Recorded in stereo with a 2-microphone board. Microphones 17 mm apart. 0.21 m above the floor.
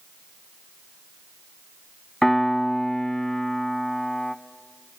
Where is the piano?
30° left (ahead or behind), 0.9 m.